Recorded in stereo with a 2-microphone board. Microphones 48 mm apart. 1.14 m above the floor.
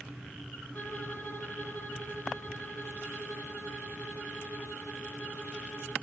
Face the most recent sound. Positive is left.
turn(degrees=40)  # may be behind; listen again after turning